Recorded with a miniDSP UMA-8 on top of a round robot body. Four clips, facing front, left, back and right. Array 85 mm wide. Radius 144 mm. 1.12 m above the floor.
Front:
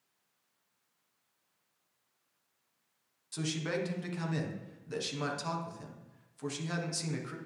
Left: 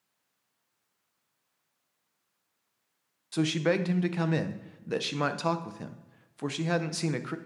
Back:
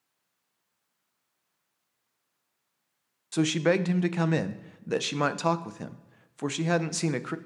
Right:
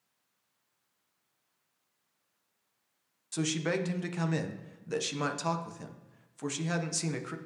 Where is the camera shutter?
I don't hear a camera shutter.